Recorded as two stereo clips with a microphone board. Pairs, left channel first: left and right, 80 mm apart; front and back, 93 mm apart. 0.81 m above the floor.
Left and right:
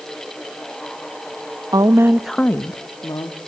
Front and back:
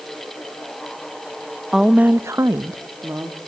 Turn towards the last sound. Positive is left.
turn(degrees=120)